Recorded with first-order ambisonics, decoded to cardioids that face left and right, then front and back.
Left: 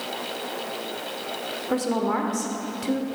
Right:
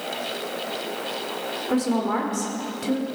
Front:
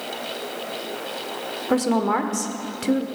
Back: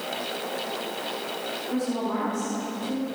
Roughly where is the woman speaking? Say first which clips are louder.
Even, front 10 dB; ahead.